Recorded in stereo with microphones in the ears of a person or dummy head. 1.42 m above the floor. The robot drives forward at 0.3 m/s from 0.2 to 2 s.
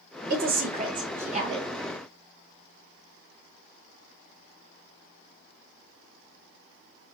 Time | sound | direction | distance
0.3 | a woman speaking | 50° right (ahead or behind) | 1.1 m